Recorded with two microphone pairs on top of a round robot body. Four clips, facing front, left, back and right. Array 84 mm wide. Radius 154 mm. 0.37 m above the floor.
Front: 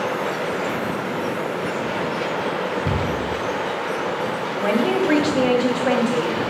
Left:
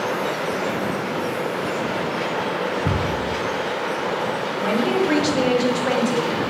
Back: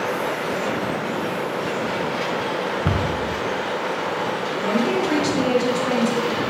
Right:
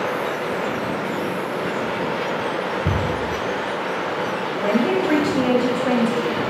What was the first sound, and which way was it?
A cupboard door, 175° left.